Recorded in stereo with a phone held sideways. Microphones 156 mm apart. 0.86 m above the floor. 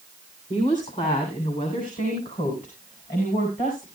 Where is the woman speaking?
50° left (ahead or behind), 2.5 m; by 3.9 s 65° left (ahead or behind), 4.5 m.